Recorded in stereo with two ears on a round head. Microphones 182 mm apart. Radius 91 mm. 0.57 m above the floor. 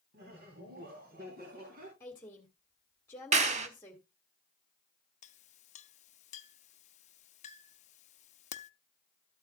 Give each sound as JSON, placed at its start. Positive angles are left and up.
{"t": 0.1, "sound": "laughter", "side_deg": -50, "distance_m": 3.5}
{"t": 2.0, "sound": "a woman speaking", "side_deg": 10, "distance_m": 1.9}
{"t": 3.3, "sound": "a clap", "side_deg": -35, "distance_m": 1.3}
{"t": 5.2, "sound": "a clink", "side_deg": 35, "distance_m": 0.6}